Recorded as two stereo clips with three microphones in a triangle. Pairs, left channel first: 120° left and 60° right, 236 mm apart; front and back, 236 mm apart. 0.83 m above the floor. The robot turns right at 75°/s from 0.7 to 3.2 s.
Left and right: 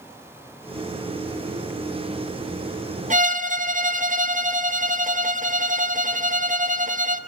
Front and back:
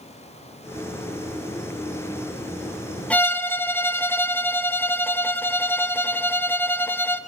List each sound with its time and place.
3.1 s a violin: 80° right, 0.8 m; by 7.2 s 75° right, 0.8 m